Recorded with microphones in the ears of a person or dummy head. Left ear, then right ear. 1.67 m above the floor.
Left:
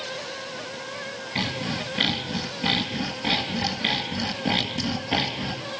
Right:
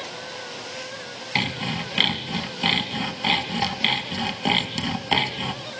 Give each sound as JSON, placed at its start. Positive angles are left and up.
{"t": 1.4, "sound": "sawing", "side_deg": -30, "distance_m": 2.0}